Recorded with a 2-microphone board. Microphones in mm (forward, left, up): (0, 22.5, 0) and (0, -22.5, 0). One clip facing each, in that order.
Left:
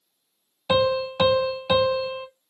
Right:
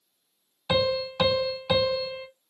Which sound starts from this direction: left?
A piano, at 0.7 s.